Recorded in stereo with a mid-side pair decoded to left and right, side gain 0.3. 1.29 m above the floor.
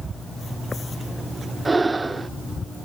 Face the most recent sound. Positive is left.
turn(degrees=-35)